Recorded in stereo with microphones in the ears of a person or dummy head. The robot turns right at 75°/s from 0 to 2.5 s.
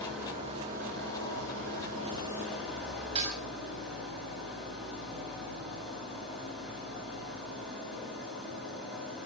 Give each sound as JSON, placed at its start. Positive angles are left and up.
{"t": 0.0, "sound": "an engine running", "azimuth_deg": 170, "distance_m": 5.5}
{"t": 3.1, "sound": "dishes clattering", "side_deg": -35, "distance_m": 4.5}